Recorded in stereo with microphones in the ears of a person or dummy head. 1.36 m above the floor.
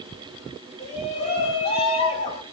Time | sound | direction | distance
0.8 | a shout | 35° left (ahead or behind) | 4.5 m